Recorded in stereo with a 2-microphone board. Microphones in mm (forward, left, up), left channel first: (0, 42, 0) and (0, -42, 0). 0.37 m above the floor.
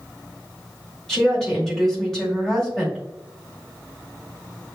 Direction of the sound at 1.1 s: 5° left (ahead or behind).